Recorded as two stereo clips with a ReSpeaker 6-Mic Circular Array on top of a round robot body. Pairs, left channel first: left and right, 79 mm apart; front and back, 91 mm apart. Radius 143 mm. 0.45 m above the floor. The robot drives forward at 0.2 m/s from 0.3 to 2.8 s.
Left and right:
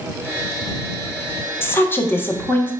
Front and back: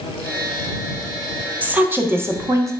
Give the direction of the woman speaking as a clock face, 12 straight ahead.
8 o'clock.